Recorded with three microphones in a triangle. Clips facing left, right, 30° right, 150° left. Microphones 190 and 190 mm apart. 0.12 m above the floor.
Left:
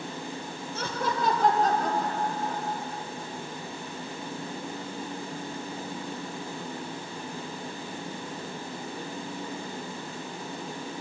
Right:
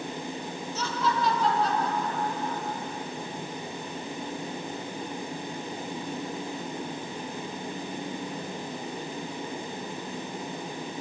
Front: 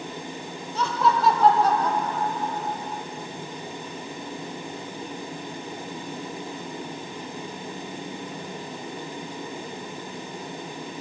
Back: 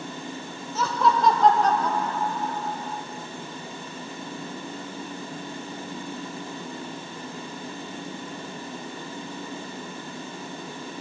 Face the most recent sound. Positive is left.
turn(degrees=40)